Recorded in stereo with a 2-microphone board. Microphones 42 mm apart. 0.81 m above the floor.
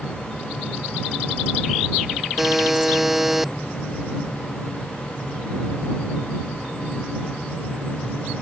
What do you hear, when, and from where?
2.4 s a buzzer: 10° right (ahead or behind)